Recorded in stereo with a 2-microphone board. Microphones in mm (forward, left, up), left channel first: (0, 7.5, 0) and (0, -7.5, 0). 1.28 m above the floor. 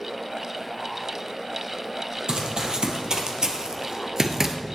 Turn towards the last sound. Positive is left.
turn(degrees=-15)  # may be behind; listen again after turning